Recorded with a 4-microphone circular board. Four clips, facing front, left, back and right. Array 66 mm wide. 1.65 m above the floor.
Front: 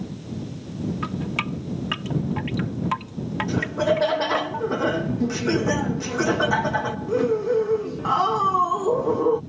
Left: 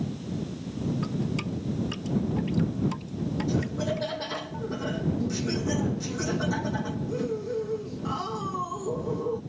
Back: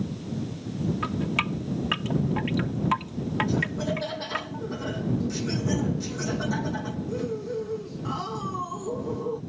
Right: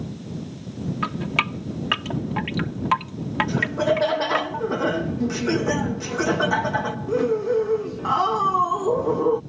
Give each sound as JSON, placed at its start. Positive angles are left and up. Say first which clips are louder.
{"t": 1.0, "sound": "dripping", "louder": "right 5 dB, even", "azimuth_deg": -90}
{"t": 3.5, "sound": "laughter", "louder": "right 9 dB, front 6 dB", "azimuth_deg": -50}